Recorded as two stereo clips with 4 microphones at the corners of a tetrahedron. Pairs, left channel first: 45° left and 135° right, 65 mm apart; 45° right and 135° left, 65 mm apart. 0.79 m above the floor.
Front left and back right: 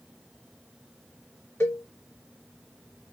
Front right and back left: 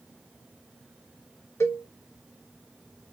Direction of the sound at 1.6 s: 5° right.